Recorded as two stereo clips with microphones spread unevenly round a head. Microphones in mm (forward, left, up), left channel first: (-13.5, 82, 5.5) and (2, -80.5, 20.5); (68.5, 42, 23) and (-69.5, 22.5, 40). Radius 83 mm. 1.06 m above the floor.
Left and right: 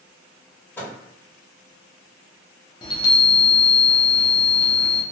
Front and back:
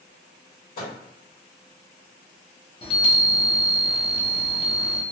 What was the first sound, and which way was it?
A microwave, 15° left.